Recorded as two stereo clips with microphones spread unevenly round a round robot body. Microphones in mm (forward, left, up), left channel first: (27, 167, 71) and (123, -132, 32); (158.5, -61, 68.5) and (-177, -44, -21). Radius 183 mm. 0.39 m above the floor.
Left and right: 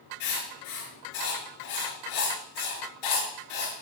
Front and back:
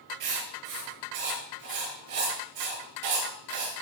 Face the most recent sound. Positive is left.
turn(degrees=140)